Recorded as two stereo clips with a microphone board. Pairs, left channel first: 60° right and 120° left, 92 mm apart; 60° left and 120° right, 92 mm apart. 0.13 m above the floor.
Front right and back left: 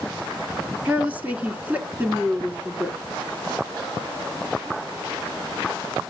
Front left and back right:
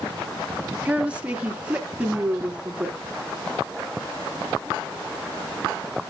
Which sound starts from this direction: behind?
A woman speaking, at 0.8 s.